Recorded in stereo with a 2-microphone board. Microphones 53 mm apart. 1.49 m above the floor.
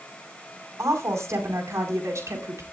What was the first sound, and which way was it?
A woman speaking, 80° right.